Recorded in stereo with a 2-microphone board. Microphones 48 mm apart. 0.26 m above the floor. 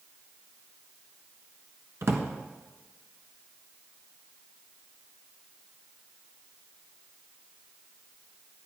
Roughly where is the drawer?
Right.